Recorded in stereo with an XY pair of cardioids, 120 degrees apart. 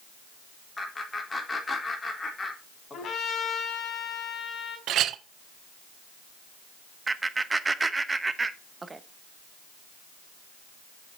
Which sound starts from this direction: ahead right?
A clink, at 4.9 s.